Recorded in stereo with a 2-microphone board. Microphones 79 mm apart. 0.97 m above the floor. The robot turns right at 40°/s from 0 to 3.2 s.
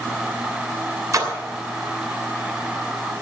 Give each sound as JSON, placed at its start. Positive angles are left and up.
{"t": 1.1, "sound": "a splash", "side_deg": -45, "distance_m": 2.5}